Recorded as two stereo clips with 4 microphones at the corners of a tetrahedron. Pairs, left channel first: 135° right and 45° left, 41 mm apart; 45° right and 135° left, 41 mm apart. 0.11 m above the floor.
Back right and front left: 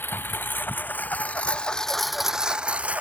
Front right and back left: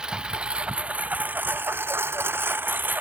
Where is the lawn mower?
155° right; by 3.0 s 95° left.